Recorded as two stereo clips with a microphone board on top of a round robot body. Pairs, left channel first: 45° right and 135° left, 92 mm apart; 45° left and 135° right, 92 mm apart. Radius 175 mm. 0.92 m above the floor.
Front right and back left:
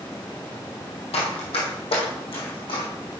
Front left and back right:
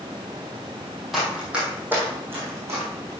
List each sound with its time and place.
1.1 s running footsteps: 45° right, 1.8 m; by 3.1 s 75° right, 4 m